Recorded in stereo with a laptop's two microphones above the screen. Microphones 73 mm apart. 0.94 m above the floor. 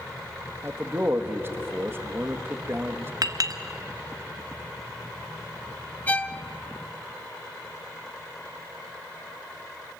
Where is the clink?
55° right (ahead or behind), 1.1 m.